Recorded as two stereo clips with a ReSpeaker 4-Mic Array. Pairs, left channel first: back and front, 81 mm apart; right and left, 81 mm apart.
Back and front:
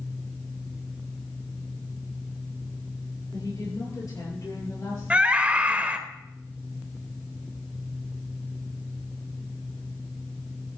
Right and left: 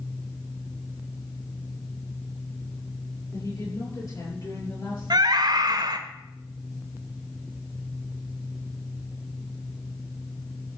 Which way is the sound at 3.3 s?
135° right.